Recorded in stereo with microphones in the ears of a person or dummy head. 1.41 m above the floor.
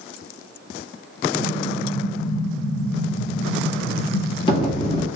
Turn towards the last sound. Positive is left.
turn(degrees=25)  # may be behind; listen again after turning